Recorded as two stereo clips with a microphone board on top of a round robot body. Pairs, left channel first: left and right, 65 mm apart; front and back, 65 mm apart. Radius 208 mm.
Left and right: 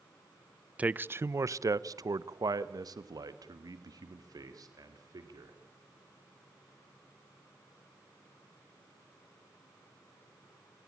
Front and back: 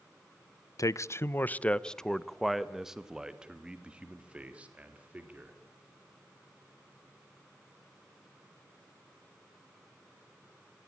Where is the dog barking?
No dog barking in this recording.